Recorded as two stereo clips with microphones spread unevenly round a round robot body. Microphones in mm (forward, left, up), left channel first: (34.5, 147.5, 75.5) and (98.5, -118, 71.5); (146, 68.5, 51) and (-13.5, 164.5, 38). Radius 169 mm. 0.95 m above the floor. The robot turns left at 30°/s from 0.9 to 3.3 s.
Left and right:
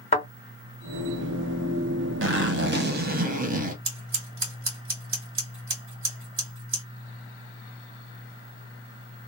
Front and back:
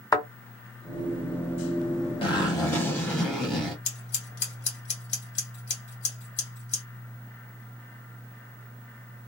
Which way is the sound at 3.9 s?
30° right.